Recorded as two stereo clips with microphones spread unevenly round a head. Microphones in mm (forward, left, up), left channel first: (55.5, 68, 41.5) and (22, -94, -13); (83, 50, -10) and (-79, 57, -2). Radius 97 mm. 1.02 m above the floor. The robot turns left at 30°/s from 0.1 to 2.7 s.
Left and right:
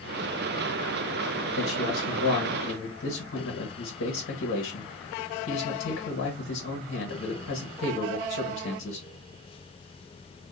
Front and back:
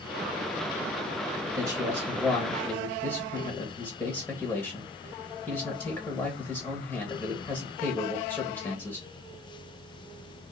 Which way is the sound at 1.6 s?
100° left.